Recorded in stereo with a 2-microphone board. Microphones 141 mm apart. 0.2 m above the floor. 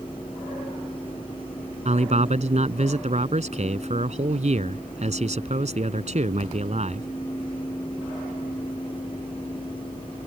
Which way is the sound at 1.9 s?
55° right (ahead or behind).